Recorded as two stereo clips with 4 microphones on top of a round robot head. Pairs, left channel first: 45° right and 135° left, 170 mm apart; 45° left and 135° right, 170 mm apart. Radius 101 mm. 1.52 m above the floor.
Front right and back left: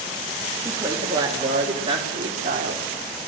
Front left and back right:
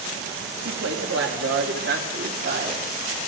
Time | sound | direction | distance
0.7 | a woman speaking | 150° right | 3 m